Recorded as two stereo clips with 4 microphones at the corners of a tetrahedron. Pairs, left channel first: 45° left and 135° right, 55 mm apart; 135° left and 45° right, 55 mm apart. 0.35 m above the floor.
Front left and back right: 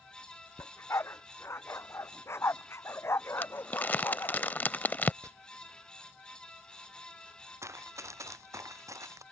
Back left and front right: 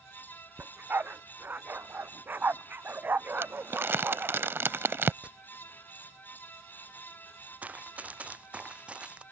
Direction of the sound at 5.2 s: 115° right.